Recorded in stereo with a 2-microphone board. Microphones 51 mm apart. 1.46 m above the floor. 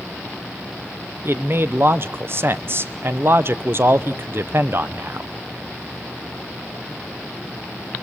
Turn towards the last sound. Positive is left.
turn(degrees=-50)  # may be behind; listen again after turning